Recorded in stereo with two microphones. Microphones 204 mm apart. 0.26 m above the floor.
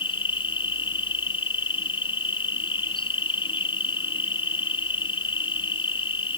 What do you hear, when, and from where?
0.0 s an insect: 25° left (ahead or behind)